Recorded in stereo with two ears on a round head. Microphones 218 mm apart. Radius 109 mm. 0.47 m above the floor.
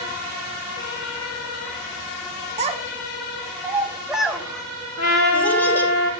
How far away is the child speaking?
About 0.9 m.